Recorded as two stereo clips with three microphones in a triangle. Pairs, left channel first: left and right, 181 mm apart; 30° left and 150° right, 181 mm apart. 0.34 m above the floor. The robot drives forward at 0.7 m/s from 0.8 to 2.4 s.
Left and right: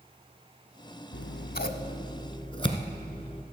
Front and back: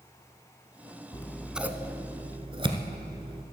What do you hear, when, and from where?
1.1 s scissors: 95° left, 0.5 m; by 3.4 s 150° left, 1.1 m